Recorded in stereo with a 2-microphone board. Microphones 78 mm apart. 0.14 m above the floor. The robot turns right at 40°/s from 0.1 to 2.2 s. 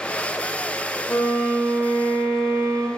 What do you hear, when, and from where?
1.1 s a violin: 140° left, 2 m; by 2.9 s 175° right, 2 m